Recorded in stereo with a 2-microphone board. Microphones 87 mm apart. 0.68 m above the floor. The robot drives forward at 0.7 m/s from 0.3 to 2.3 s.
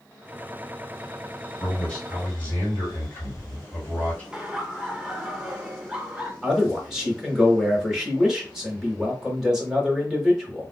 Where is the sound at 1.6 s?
20° left (ahead or behind), 2.5 m; by 4.2 s 15° left (ahead or behind), 3 m.